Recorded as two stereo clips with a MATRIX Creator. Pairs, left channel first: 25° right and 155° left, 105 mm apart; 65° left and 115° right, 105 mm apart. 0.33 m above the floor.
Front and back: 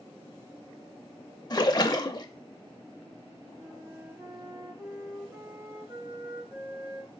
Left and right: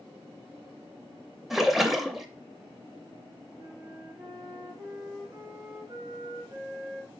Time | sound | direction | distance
1.5 | a splash | 25° right | 0.5 m
3.6 | a flute | 155° right | 3 m